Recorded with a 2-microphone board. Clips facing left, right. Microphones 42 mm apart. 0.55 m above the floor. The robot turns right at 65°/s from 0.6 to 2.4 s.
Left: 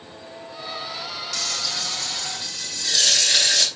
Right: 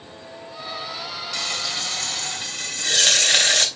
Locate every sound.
1.3 s frying: 155° right, 1.0 m; by 3.7 s 85° right, 1.0 m